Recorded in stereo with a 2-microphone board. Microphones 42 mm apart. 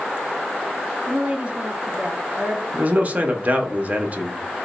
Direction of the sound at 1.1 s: 25° right (ahead or behind).